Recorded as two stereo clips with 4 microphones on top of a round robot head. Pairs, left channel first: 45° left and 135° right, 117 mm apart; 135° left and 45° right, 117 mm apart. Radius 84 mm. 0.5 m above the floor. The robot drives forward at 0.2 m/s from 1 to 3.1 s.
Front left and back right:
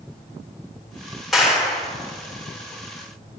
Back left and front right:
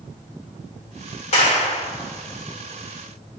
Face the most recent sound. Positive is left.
turn(degrees=145)